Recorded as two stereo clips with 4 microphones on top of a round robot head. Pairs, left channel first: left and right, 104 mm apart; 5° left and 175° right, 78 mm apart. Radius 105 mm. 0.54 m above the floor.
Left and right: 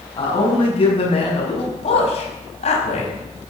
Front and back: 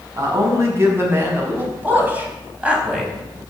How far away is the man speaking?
About 6 m.